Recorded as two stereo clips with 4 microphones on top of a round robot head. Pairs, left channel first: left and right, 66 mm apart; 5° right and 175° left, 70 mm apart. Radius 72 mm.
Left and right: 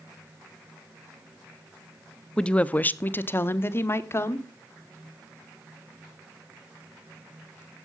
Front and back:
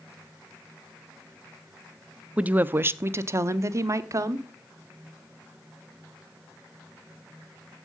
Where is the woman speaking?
145° left, 0.6 m; by 4.5 s 135° left, 1.5 m.